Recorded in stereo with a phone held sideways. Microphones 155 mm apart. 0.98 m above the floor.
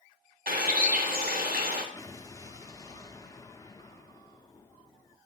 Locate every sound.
0.5 s a bird: 70° right (ahead or behind), 1.2 m
1.9 s an explosion: 25° left (ahead or behind), 0.6 m